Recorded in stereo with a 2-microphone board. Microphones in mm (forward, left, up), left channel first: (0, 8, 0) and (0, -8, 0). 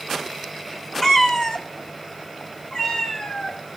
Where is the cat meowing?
30° left (ahead or behind), 1.3 m; by 3.6 s 60° left (ahead or behind), 3 m.